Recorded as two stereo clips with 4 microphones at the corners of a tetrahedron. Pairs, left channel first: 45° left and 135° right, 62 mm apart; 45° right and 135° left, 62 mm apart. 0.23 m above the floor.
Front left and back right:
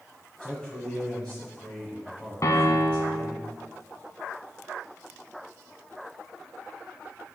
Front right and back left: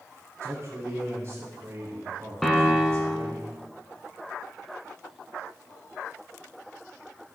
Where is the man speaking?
120° left, 1.5 m.